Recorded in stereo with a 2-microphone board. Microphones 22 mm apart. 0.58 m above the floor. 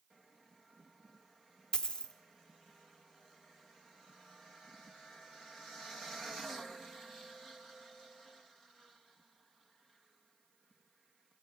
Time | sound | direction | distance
1.7 | a dropped coin | 40° left (ahead or behind) | 0.6 m